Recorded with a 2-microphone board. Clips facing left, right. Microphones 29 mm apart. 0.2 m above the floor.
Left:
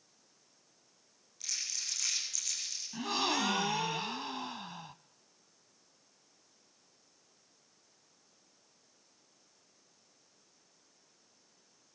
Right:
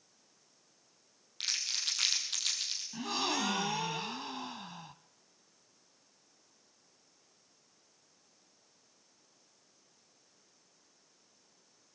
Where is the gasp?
10° left (ahead or behind), 0.6 m.